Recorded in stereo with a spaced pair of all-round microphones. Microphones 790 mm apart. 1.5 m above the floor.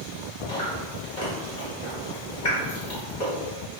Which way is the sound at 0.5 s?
60° left (ahead or behind).